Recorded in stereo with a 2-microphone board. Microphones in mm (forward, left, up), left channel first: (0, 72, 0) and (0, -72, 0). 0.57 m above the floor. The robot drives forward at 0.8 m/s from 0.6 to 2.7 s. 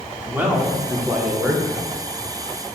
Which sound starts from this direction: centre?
A man speaking, at 0.3 s.